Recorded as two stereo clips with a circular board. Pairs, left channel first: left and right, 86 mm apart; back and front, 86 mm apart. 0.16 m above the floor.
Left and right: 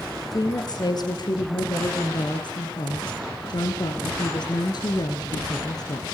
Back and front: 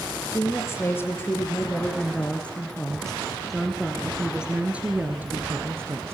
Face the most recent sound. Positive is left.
turn(degrees=55)